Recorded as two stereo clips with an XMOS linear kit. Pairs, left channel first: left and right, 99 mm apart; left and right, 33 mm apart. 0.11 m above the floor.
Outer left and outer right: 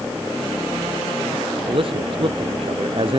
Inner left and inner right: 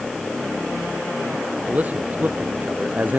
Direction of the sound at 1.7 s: 55° right (ahead or behind).